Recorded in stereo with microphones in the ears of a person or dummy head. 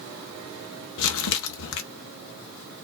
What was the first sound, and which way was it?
Crumpling, 70° left (ahead or behind).